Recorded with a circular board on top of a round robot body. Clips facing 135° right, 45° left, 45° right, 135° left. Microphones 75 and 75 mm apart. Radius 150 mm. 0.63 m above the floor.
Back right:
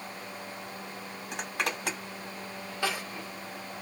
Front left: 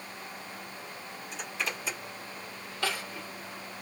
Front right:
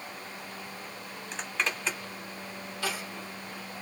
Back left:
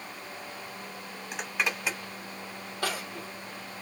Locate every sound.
1.3 s a zipper: 145° right, 1.1 m
2.8 s crying: 155° left, 1.4 m